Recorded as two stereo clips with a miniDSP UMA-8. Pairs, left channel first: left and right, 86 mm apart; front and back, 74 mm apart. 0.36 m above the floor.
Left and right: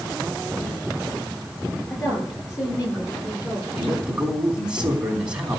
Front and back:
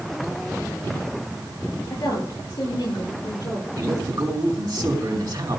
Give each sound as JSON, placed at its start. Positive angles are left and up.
{"t": 1.9, "sound": "a woman speaking", "azimuth_deg": 35, "distance_m": 9.0}
{"t": 3.8, "sound": "a man speaking", "azimuth_deg": -170, "distance_m": 3.5}